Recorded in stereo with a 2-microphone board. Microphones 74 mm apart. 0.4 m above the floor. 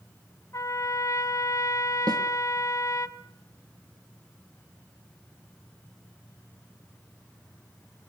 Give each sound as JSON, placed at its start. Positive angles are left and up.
{"t": 0.5, "sound": "a trumpet", "side_deg": 45, "distance_m": 1.1}
{"t": 2.1, "sound": "a snare drum", "side_deg": -80, "distance_m": 2.0}